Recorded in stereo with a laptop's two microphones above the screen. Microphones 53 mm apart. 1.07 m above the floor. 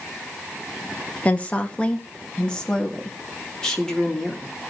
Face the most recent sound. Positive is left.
turn(degrees=10)  # may be behind; listen again after turning